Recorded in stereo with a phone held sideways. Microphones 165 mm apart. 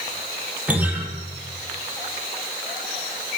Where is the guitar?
10° right (ahead or behind), 6 m.